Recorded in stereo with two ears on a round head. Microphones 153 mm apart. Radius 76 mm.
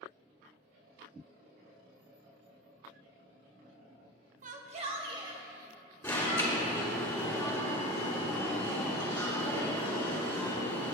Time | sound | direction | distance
4.4 | a shout | 50° right (ahead or behind) | 1.0 m
6.0 | an alarm | 15° left (ahead or behind) | 2.5 m